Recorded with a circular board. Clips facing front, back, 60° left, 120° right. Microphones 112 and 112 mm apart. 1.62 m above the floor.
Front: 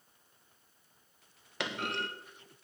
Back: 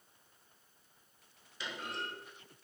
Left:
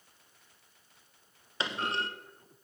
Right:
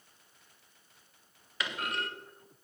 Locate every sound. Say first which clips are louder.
1.6 s a clunk: front 6 dB, left 2 dB; straight ahead, 0.7 m